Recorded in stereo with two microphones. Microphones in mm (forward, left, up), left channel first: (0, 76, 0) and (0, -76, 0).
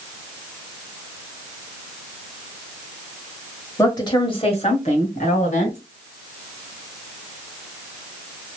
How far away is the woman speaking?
About 1.3 m.